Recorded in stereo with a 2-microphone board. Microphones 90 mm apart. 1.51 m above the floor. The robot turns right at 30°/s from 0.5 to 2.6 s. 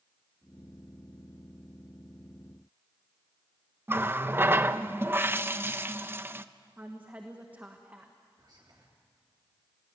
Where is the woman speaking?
20° right (ahead or behind), 1.6 m.